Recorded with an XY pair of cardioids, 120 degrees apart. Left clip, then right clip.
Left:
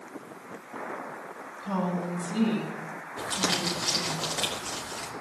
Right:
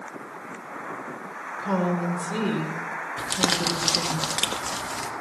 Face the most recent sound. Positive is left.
turn(degrees=-45)